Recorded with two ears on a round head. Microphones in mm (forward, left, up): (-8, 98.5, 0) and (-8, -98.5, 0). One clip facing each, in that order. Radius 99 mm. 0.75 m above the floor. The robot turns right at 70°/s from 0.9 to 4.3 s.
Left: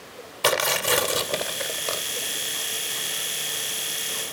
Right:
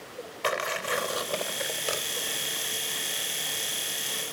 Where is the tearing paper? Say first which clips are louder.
Left 7 dB; 125° left, 2 m; by 2.0 s 160° right, 2 m.